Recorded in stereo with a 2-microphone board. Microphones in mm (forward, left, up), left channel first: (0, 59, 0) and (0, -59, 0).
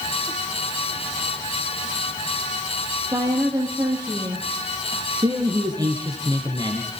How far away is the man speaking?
About 3.5 m.